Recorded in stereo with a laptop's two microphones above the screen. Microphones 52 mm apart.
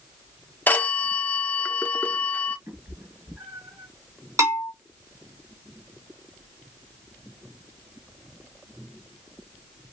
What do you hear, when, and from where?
0.7 s a phone ringing: 30° left (ahead or behind), 0.6 m
2.7 s a cat meowing: 55° right (ahead or behind), 2.5 m
4.4 s a bell: 80° right, 2 m